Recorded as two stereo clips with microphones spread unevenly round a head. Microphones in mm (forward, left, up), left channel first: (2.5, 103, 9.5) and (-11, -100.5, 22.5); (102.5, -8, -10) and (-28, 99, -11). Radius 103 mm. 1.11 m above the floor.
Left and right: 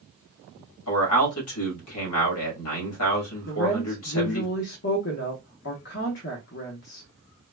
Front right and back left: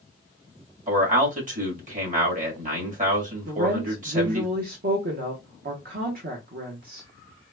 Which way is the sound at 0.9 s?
100° left.